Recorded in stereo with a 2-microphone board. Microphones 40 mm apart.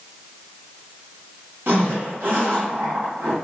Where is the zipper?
65° right (ahead or behind), 1.9 m.